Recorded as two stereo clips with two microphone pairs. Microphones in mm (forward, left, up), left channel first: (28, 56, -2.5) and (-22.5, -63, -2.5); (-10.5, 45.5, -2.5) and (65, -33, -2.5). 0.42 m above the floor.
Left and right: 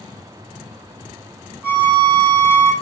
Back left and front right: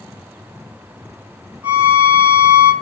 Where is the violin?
65° right, 1.2 m.